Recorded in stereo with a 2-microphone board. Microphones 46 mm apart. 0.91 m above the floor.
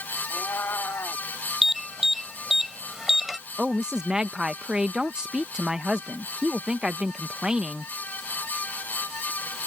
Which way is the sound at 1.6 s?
5° right (ahead or behind).